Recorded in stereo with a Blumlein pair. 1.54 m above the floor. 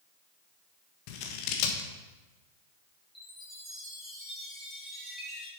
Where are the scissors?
45° left, 1.5 m.